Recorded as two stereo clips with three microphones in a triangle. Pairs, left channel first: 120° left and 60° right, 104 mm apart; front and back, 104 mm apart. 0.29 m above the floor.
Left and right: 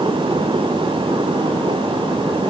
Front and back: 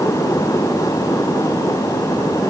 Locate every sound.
Only background noise.